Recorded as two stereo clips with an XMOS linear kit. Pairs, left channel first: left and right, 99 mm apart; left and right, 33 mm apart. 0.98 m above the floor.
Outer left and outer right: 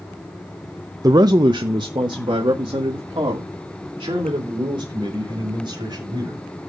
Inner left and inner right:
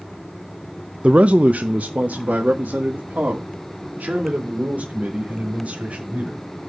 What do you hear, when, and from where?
1.0 s a man speaking: 35° right (ahead or behind), 0.6 m; by 6.5 s 45° right (ahead or behind), 5 m